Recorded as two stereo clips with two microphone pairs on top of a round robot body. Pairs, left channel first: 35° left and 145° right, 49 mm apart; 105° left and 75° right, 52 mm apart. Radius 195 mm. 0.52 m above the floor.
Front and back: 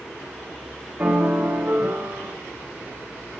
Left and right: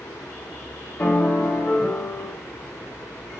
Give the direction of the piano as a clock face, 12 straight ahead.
7 o'clock.